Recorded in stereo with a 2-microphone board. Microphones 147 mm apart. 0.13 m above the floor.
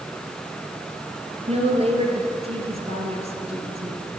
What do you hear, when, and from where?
1.5 s a woman speaking: 45° right (ahead or behind), 2.5 m